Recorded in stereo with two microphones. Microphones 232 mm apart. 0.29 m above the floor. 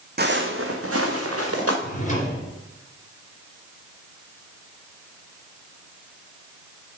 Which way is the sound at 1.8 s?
30° left (ahead or behind).